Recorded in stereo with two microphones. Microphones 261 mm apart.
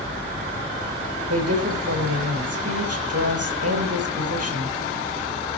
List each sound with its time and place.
1.3 s a woman speaking: 75° right (ahead or behind), 5.5 m